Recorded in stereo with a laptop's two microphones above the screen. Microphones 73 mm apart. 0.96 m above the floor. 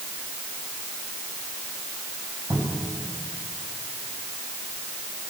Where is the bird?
I don't hear a bird.